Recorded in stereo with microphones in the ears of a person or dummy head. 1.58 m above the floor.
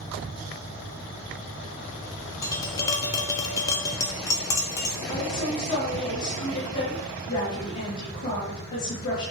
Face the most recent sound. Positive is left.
turn(degrees=60)  # may be behind; listen again after turning